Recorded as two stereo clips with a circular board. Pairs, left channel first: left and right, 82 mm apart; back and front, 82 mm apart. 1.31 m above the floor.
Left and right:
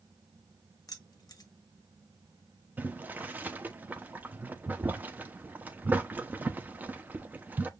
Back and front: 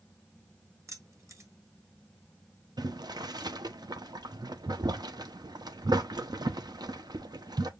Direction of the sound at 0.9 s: 50° left.